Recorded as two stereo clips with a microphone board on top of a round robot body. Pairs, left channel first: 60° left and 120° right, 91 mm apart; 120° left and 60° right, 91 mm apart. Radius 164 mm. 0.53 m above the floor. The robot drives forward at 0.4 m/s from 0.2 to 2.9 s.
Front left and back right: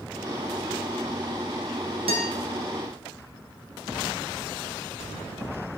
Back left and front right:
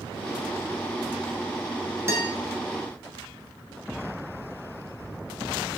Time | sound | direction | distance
2.1 | a guitar | 120° right | 1.4 m